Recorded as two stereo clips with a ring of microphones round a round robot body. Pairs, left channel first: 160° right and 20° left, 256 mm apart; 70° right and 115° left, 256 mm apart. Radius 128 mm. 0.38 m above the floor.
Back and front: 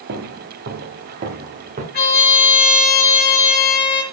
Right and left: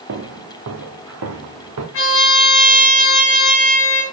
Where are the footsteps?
70° left, 2.0 m; by 1.8 s 85° left, 2.5 m.